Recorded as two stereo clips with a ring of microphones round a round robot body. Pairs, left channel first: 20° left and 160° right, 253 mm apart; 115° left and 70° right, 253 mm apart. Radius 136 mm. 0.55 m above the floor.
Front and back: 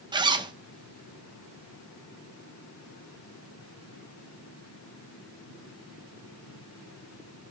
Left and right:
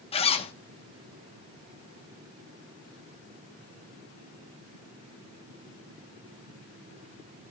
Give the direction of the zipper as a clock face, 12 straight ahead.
7 o'clock.